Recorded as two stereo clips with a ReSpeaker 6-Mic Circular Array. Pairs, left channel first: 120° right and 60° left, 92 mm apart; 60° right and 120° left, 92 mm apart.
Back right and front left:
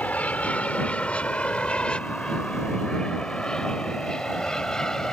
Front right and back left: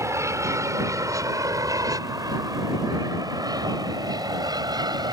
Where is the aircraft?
170° left; by 5.1 s 155° left.